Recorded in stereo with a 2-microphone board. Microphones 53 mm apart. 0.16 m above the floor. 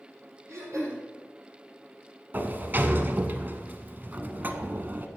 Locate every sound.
0.5 s throat clearing: 60° right (ahead or behind), 4.5 m
2.3 s a sliding door: 40° right (ahead or behind), 0.7 m